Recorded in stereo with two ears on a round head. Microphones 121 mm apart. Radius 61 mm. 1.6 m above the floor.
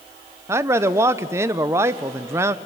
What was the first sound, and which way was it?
A man speaking, 20° right (ahead or behind).